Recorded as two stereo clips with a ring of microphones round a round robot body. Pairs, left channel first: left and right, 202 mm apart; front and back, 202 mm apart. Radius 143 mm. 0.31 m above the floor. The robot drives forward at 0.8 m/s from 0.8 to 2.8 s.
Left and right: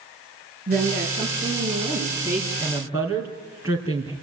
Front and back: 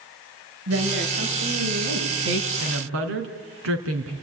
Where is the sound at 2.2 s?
170° right, 2.5 m.